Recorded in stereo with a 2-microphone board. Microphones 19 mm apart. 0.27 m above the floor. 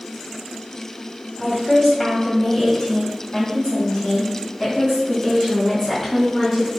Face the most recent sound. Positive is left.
turn(degrees=30)  # may be behind; listen again after turning